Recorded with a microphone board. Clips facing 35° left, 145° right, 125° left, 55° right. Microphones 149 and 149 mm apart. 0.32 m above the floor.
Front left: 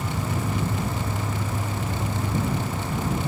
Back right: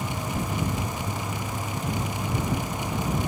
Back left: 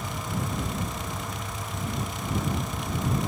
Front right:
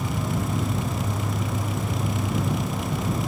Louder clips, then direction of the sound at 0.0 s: Front left 2 dB, front right 5 dB; 45° right.